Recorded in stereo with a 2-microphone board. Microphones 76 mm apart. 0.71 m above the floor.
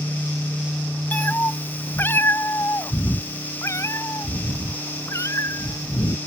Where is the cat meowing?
25° left (ahead or behind); by 6.2 s 45° left (ahead or behind).